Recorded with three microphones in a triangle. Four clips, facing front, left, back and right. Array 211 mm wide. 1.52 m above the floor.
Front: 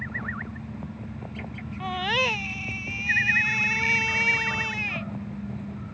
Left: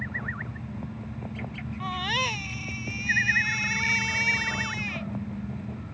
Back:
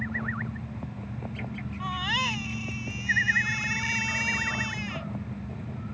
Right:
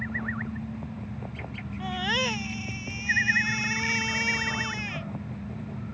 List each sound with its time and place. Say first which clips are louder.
1.8 s a baby crying: right 1 dB, front 4 dB; 20° right